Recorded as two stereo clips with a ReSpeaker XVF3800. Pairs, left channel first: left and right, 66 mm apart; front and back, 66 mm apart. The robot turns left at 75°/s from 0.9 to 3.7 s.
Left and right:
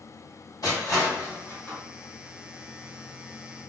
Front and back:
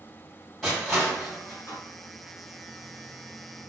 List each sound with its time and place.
0.6 s crushing: 85° left, 2.0 m; by 1.8 s 15° left, 2.0 m